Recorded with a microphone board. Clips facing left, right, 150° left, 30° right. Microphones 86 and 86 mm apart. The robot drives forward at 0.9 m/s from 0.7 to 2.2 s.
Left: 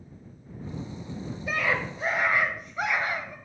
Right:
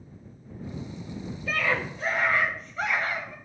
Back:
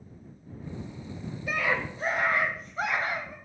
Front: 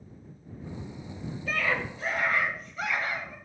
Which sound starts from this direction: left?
A scream, at 1.5 s.